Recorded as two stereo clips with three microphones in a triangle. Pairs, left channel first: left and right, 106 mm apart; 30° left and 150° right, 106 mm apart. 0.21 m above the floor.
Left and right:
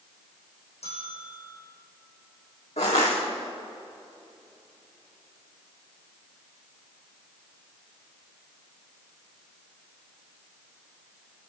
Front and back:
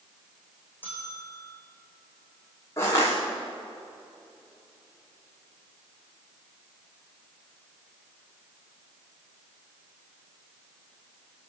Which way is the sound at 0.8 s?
100° left.